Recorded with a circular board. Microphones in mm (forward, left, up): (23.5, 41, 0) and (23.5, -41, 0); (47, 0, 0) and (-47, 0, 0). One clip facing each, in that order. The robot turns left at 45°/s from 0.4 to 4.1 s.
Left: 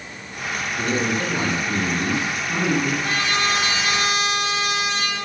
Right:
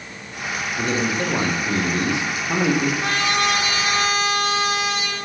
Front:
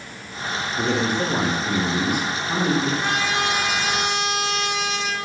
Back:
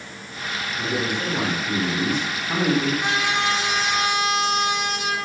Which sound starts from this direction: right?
A trumpet, at 3.0 s.